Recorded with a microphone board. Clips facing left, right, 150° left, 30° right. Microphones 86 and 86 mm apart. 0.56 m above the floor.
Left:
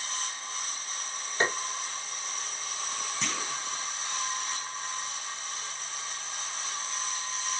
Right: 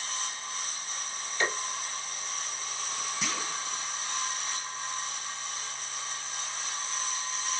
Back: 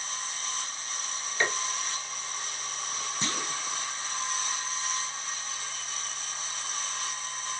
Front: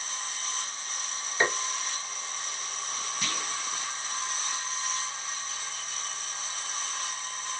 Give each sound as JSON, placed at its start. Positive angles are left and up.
{"t": 1.4, "sound": "tapping", "azimuth_deg": 40, "distance_m": 1.4}
{"t": 3.2, "sound": "a clunk", "azimuth_deg": -170, "distance_m": 0.6}